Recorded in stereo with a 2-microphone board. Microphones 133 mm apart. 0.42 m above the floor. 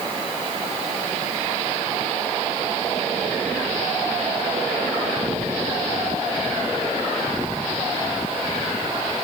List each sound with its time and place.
Only background noise.